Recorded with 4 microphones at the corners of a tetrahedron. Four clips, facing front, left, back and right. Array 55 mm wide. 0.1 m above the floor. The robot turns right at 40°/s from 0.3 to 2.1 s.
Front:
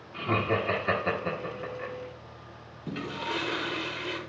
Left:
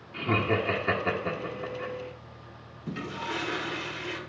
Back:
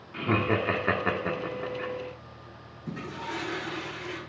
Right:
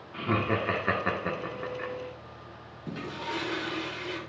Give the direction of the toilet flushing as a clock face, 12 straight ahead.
12 o'clock.